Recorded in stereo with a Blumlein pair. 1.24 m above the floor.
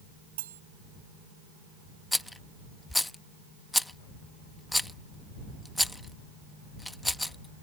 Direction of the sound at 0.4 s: 60° right.